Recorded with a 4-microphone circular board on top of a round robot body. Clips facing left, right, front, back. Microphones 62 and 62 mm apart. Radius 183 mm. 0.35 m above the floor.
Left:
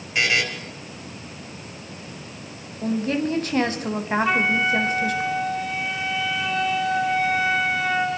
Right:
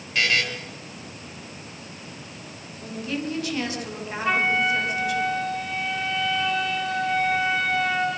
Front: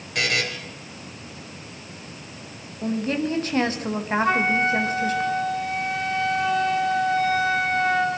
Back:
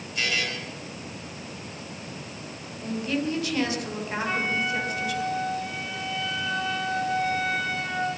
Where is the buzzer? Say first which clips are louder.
Left 1 dB, front 4 dB; 15° left, 4 m.